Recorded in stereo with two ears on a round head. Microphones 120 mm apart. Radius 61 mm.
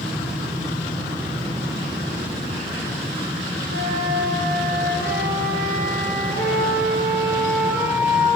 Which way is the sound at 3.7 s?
75° right (ahead or behind).